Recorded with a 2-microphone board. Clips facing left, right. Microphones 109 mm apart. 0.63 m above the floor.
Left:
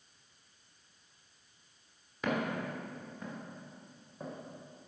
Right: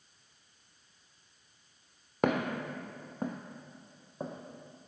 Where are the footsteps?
65° right (ahead or behind), 1.4 m; by 4.9 s 20° right (ahead or behind), 1.8 m.